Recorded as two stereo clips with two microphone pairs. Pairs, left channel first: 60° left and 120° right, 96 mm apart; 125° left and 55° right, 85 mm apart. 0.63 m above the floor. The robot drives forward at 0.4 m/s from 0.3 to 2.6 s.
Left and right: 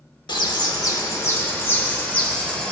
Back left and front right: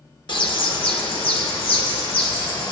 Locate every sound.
0.3 s a bird: 100° left, 0.9 m; by 2.7 s 140° left, 1.4 m